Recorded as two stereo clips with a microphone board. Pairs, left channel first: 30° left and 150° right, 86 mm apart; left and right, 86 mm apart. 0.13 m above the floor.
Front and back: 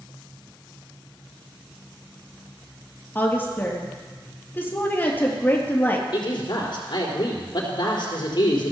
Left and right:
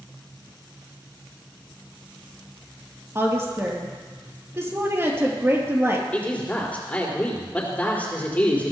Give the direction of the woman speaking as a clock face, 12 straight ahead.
1 o'clock.